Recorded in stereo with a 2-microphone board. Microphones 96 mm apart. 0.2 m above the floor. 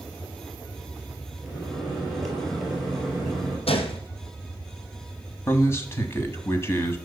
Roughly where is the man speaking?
Left.